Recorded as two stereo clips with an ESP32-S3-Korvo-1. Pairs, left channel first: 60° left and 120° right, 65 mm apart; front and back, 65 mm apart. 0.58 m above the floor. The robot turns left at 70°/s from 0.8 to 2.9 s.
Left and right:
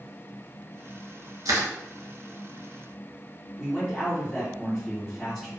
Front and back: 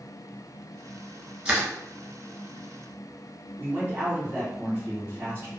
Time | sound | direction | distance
1.4 | crushing | 105° right | 1.2 m
3.6 | a man speaking | 145° left | 1.5 m